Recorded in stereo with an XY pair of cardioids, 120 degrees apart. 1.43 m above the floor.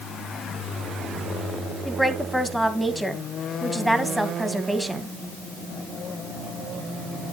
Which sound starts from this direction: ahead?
A woman speaking, at 1.9 s.